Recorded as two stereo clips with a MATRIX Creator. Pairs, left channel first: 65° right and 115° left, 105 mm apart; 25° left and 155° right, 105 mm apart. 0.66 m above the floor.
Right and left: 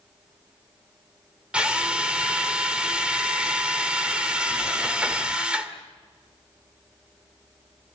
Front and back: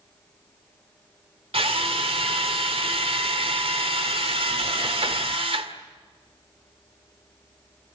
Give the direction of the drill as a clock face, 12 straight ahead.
6 o'clock.